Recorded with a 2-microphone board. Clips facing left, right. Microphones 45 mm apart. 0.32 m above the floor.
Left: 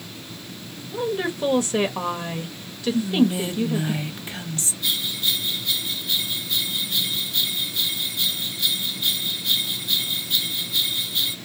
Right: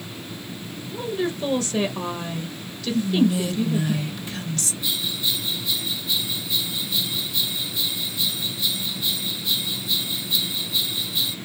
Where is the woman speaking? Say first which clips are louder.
Left 1 dB; 20° left (ahead or behind), 0.9 m.